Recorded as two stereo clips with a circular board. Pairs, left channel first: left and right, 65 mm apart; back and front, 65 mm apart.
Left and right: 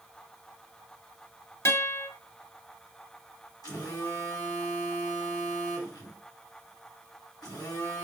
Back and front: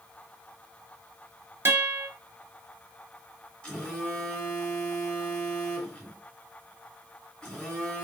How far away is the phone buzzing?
About 3 m.